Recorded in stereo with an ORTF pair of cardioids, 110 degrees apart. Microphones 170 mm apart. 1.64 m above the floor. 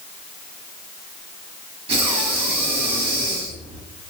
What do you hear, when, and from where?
1.9 s breathing: 35° right, 1.1 m